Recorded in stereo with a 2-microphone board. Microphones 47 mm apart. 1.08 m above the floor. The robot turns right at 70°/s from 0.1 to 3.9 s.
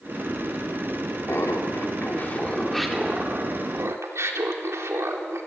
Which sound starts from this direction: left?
Laughter, at 1.3 s.